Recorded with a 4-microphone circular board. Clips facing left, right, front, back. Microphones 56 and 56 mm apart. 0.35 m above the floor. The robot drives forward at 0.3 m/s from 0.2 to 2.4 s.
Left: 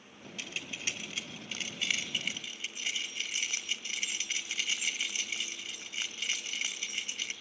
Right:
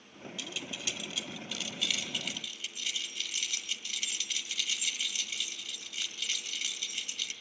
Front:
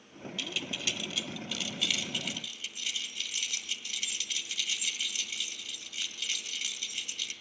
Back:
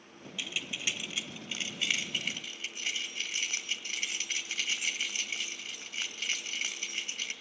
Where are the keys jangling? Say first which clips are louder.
Left 1 dB, even; 110° left, 1.2 m; by 7.3 s 135° left, 1.5 m.